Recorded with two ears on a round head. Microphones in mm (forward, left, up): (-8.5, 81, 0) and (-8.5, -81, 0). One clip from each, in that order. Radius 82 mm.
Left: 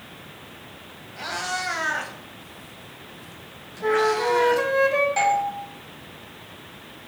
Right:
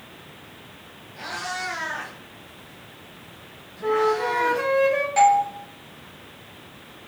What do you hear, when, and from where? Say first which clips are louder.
1.2 s a cat meowing: left 2 dB; 10° left (ahead or behind), 1.9 m; by 4.7 s 70° left (ahead or behind), 2.5 m
3.8 s a flute: left 1 dB; 5° left (ahead or behind), 1.4 m
5.2 s a doorbell: right 4 dB; 10° right (ahead or behind), 2.5 m